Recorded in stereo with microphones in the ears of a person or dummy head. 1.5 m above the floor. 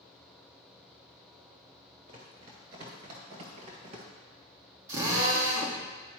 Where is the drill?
20° right (ahead or behind), 1.4 m.